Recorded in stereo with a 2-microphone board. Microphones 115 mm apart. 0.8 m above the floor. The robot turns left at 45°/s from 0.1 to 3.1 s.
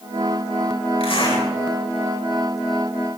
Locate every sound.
1.0 s a zipper: 55° left (ahead or behind), 5.5 m; by 1.4 s 35° left (ahead or behind), 5.5 m